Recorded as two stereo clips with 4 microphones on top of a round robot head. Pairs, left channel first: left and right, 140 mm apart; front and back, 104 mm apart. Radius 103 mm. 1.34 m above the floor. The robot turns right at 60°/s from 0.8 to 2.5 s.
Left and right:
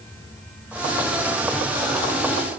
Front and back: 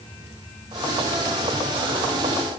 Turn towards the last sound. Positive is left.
No sound to turn to.